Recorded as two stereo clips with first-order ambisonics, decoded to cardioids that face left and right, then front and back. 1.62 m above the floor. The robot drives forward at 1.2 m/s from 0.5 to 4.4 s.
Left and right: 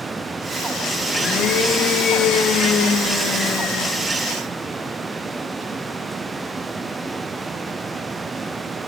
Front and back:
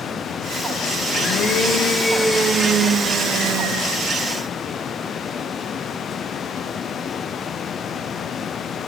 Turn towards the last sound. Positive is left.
turn(degrees=160)